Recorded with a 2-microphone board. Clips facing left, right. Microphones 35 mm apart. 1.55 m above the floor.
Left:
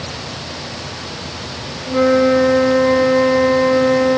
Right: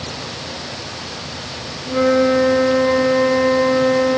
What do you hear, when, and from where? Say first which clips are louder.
1.9 s a flute: left 2 dB; 5° left (ahead or behind)